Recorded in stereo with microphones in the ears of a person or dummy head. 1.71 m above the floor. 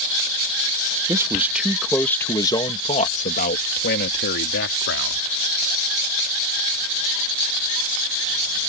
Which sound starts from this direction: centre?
A man speaking, at 1.1 s.